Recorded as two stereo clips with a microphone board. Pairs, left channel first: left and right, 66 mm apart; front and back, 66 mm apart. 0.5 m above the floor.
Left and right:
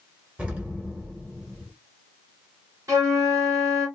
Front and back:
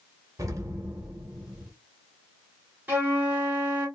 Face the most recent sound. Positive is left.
turn(degrees=-120)